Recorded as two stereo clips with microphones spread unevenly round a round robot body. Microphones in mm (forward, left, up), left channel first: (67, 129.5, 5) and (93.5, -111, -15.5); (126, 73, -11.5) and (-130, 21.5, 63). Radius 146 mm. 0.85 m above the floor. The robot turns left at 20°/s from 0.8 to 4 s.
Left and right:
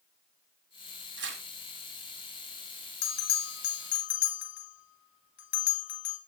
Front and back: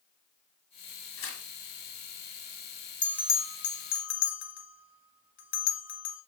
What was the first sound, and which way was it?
Tearing paper, 40° right.